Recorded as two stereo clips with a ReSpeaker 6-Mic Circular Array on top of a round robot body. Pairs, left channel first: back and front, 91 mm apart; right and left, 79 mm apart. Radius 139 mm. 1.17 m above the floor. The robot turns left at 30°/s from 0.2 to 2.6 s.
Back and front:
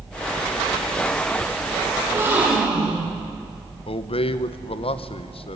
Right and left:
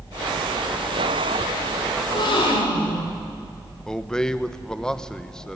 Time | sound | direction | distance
2.0 | a gasp | 60° right | 5 m
3.9 | a man speaking | 170° right | 1.2 m